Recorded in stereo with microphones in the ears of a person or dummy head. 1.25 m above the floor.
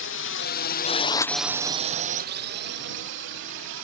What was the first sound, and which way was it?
A drone, 60° left (ahead or behind).